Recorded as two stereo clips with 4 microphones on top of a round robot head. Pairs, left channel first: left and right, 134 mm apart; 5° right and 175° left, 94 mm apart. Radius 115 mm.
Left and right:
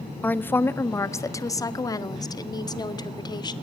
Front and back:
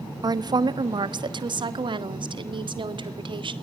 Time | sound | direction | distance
0.2 | a woman speaking | 165° left | 1.2 m